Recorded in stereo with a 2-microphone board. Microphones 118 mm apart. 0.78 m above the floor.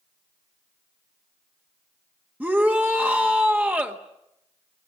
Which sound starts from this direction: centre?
A shout, at 2.4 s.